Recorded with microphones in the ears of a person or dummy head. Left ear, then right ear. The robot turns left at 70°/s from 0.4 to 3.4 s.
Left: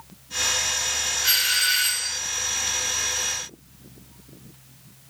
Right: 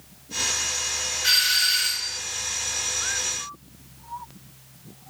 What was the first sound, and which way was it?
A doorbell, 175° right.